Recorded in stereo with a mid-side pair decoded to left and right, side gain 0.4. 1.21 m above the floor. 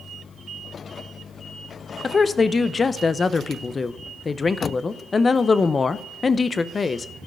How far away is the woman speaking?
About 0.7 m.